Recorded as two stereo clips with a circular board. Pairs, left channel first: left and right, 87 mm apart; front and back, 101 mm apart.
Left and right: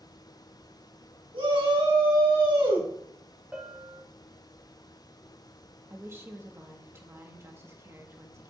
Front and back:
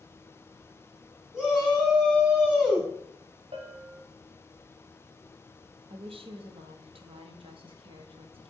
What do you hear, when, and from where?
1.3 s a shout: 95° right, 4.5 m
3.5 s a bell: 165° right, 1.5 m
5.9 s a woman speaking: 150° right, 1.3 m